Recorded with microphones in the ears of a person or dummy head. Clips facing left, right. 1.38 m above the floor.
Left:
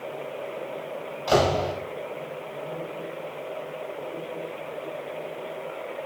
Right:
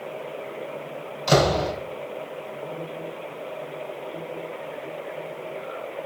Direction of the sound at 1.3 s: 25° right (ahead or behind).